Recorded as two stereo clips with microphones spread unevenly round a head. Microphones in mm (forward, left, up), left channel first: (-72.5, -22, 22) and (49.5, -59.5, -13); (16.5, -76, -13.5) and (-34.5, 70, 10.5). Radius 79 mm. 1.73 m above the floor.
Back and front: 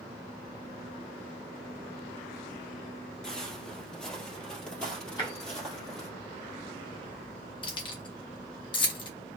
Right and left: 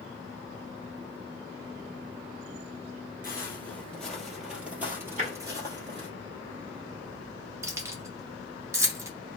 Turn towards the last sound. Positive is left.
turn(degrees=170)